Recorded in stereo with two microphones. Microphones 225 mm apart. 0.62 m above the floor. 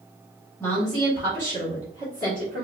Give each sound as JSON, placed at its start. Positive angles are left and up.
{"t": 0.6, "sound": "a woman speaking", "side_deg": 10, "distance_m": 1.0}